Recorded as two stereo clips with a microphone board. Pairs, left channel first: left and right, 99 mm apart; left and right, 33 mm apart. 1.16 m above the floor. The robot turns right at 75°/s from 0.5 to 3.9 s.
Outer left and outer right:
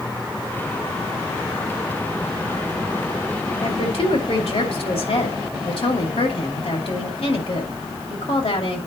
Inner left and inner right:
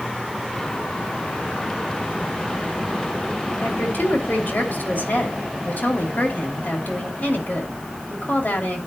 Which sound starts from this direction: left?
A woman speaking, at 3.6 s.